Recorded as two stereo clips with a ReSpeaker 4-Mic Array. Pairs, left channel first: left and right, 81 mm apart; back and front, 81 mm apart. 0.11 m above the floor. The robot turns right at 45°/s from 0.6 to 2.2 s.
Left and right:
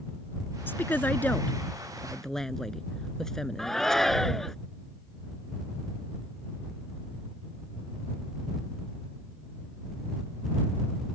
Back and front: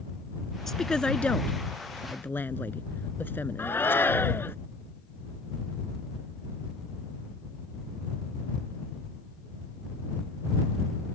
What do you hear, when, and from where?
0.7 s a woman speaking: 100° left; by 4.0 s 170° left
3.6 s a shout: 170° left